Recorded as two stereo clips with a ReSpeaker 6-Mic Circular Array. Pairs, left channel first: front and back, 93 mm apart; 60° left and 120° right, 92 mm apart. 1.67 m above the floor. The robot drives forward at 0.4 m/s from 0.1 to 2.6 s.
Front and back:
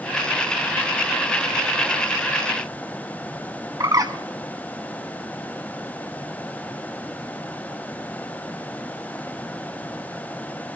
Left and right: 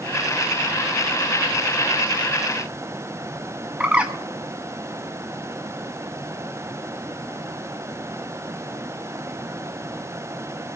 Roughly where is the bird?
Behind.